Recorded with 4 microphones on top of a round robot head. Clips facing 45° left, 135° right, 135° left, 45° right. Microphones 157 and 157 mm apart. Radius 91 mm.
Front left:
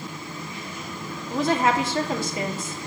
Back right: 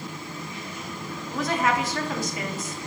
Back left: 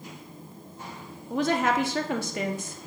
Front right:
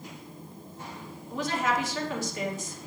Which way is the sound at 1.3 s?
105° left.